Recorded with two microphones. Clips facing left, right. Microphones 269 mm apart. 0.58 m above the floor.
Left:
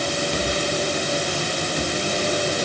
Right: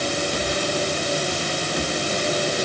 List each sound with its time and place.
Only background noise.